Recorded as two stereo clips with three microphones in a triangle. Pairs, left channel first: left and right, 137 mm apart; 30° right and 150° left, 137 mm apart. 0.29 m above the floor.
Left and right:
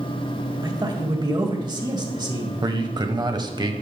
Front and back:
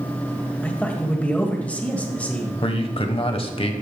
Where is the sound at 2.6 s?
45° right, 1.2 m.